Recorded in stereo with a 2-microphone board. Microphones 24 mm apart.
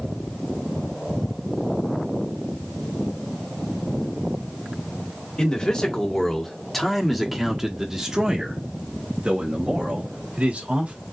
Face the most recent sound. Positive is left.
turn(degrees=-60)  # may be behind; listen again after turning